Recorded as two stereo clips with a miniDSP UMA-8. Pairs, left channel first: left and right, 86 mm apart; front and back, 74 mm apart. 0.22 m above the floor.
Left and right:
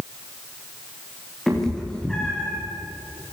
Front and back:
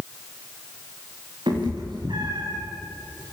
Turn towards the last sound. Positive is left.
turn(degrees=170)